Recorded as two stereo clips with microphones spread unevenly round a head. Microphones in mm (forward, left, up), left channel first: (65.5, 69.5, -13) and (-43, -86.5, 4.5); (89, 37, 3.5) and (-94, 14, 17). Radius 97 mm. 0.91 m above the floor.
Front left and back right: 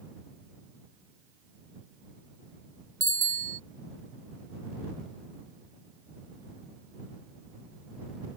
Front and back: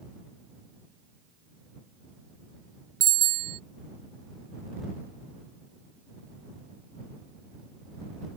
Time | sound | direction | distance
3.0 | a bicycle bell | 165° left | ?